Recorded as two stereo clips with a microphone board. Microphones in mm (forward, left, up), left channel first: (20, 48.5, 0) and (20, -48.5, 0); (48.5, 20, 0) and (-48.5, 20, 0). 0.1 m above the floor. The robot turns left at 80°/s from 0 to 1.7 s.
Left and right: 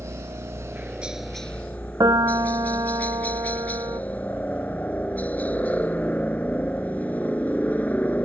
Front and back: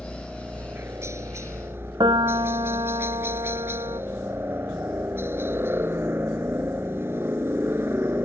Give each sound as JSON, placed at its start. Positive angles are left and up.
{"t": 0.0, "sound": "a helicopter", "azimuth_deg": -80}
{"t": 2.0, "sound": "a piano", "azimuth_deg": -140}